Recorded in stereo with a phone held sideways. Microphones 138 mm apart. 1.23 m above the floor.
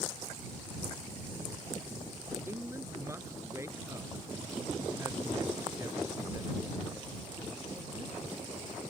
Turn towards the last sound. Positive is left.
turn(degrees=-25)  # may be behind; listen again after turning